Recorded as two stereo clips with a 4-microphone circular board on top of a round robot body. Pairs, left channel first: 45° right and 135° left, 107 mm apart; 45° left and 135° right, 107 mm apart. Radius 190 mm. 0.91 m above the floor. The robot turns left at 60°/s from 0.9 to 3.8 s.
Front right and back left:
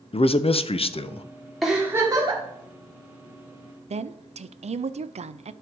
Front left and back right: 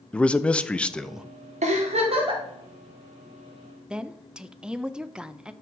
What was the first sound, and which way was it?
A man speaking, 35° right.